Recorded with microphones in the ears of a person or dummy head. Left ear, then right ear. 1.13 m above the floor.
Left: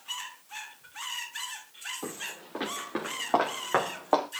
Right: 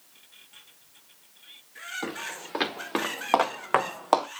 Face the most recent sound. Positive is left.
turn(degrees=-60)  # may be behind; listen again after turning